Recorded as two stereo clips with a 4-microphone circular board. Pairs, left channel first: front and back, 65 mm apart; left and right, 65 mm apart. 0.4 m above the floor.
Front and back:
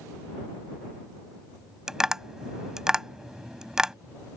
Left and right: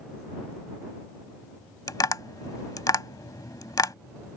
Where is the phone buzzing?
I don't hear a phone buzzing.